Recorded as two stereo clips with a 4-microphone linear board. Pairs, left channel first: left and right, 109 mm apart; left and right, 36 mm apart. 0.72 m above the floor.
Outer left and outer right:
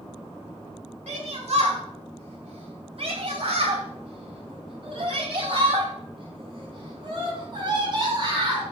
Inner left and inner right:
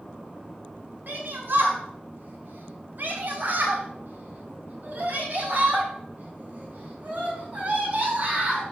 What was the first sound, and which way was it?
A shout, 80° right.